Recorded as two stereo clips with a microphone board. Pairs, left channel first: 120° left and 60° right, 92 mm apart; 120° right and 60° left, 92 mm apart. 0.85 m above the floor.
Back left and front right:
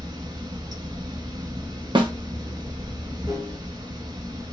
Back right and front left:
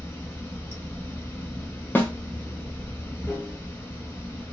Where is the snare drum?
55° right, 0.6 m.